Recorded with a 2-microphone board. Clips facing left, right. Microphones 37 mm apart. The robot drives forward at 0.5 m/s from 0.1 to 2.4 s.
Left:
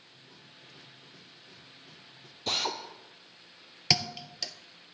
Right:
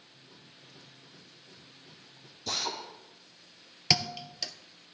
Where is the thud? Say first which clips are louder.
Even; centre (ahead or behind), 0.7 m.